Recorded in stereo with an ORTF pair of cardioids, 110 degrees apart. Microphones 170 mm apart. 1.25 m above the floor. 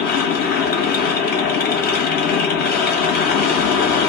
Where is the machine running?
70° left, 1.1 m.